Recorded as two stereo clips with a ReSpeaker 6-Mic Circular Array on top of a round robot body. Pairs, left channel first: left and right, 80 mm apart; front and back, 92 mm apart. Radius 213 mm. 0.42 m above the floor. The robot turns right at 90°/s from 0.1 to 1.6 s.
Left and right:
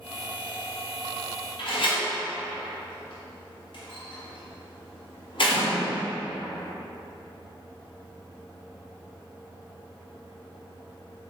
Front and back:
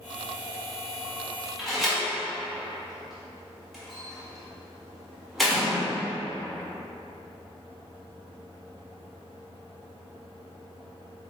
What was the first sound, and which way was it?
A door slam, 90° left.